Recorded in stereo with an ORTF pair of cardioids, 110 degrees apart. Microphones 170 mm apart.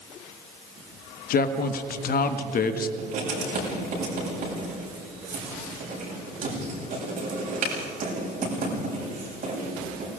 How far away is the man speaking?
About 1.4 m.